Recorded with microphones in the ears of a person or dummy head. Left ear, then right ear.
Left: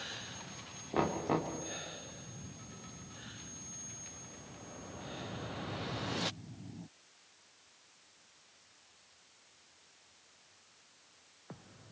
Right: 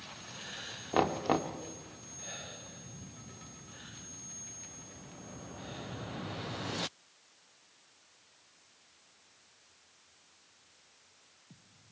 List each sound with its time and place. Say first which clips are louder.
0.9 s knocking: right 4 dB; 35° right (ahead or behind), 1.8 m